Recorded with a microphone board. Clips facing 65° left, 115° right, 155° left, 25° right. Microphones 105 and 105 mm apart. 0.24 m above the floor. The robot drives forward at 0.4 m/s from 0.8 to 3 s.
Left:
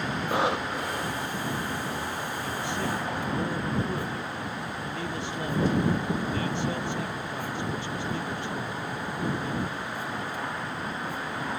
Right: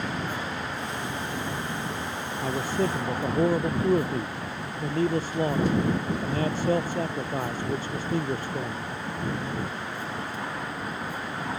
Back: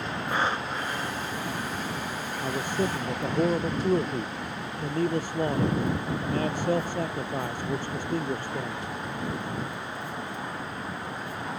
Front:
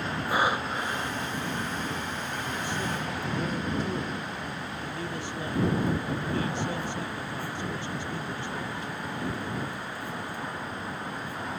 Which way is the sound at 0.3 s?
55° left.